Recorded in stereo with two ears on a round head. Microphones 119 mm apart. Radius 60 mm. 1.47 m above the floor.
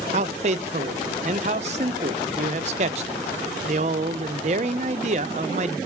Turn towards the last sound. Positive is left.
turn(degrees=-50)  # may be behind; listen again after turning